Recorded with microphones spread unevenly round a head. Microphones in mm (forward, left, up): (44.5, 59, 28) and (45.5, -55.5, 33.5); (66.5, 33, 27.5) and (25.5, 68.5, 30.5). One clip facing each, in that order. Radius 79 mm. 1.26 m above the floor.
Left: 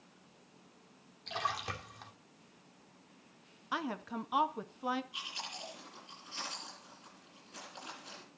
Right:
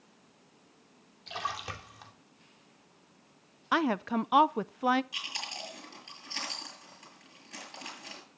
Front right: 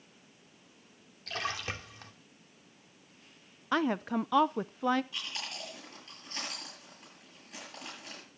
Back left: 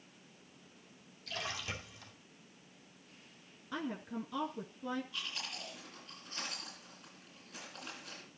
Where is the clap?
I don't hear a clap.